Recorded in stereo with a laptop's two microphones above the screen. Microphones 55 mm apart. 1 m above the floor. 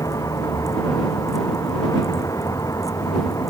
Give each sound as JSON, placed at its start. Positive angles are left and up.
{"t": 0.0, "sound": "a vehicle", "side_deg": 85}